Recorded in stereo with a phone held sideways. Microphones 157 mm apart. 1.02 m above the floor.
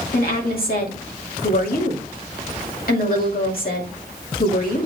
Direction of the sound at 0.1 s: 70° left (ahead or behind).